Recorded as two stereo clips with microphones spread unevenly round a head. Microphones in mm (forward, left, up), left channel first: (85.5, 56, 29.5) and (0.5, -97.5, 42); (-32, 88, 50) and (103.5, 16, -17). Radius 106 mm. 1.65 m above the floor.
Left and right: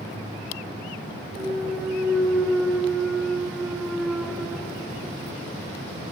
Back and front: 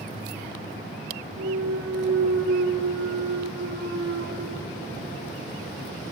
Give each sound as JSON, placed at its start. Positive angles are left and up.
{"t": 1.4, "sound": "a clunk", "azimuth_deg": -30, "distance_m": 3.0}